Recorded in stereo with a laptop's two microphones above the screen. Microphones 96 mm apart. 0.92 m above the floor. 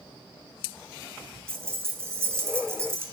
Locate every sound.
1.5 s keys jangling: 25° right (ahead or behind), 0.5 m